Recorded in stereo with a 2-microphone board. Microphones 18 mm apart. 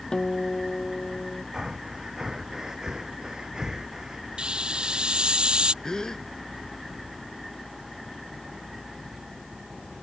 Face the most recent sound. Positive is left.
turn(degrees=40)  # may be behind; listen again after turning